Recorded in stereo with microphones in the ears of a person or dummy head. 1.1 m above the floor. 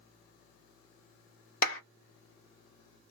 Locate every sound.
1.6 s a clap: 45° left (ahead or behind), 1.1 m